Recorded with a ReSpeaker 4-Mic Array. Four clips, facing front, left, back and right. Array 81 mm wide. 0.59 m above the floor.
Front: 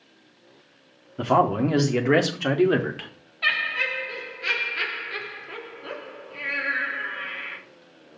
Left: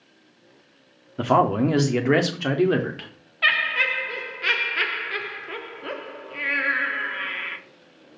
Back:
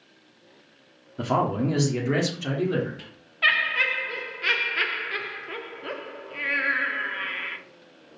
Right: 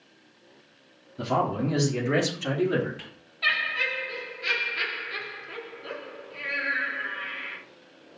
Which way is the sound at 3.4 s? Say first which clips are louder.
Left 5 dB, back 2 dB; 120° left.